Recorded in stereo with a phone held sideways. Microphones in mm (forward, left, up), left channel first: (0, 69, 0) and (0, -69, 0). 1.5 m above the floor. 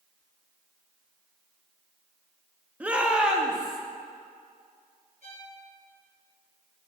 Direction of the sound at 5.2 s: 65° right (ahead or behind).